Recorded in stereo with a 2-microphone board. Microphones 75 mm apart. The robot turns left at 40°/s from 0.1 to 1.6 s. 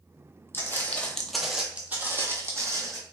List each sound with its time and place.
0.5 s footsteps: 30° left (ahead or behind), 0.7 m; by 3.0 s 45° right (ahead or behind), 1.2 m